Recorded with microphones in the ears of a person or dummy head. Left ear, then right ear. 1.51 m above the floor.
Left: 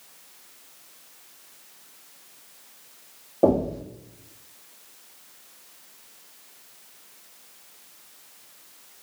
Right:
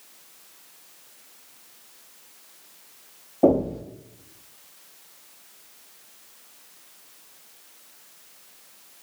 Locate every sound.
3.4 s knocking: 25° left (ahead or behind), 2.5 m